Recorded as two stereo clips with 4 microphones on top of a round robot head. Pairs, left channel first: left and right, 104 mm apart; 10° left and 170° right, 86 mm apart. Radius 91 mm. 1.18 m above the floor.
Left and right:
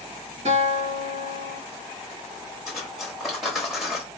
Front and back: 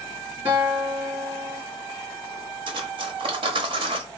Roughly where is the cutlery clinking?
Behind.